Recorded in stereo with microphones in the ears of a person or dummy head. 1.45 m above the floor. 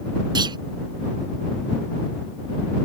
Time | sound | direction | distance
0.3 | a clunk | 25° right (ahead or behind) | ?